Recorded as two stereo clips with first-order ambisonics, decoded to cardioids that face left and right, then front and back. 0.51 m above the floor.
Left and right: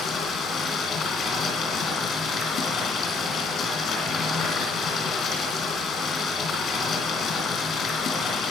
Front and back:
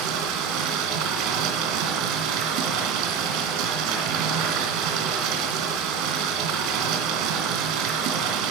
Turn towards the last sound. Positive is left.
turn(degrees=155)